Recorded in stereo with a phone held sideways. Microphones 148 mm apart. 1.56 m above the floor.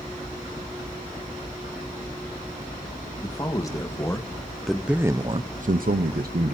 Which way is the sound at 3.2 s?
25° left (ahead or behind).